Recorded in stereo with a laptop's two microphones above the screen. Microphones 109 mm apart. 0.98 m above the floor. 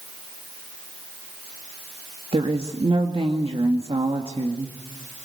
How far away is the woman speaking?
About 2.0 m.